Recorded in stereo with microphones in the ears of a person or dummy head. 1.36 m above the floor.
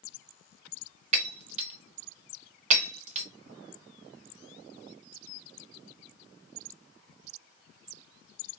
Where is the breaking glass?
40° right (ahead or behind), 1.0 m.